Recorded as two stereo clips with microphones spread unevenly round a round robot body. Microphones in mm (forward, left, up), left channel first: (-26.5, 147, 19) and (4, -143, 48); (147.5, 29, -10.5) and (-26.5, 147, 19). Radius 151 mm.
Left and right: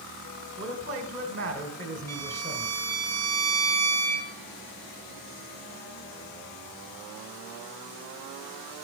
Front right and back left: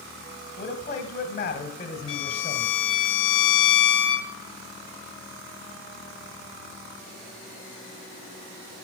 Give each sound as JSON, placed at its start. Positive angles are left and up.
{"t": 0.6, "sound": "a man speaking", "azimuth_deg": -25, "distance_m": 1.3}
{"t": 2.1, "sound": "a violin", "azimuth_deg": -10, "distance_m": 2.0}